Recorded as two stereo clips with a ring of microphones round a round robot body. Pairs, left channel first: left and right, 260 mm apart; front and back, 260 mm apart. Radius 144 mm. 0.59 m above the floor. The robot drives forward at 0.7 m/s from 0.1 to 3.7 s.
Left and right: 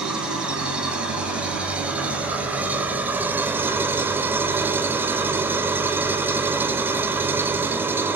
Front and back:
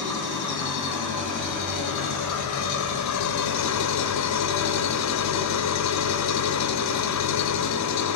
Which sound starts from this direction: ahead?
An engine running, at 0.0 s.